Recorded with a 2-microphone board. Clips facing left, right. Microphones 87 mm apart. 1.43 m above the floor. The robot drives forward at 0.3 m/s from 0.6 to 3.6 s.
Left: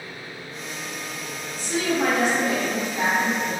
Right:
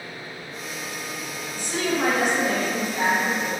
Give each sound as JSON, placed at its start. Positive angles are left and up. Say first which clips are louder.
{"t": 1.6, "sound": "a woman speaking", "louder": "left 1 dB", "side_deg": -50, "distance_m": 0.8}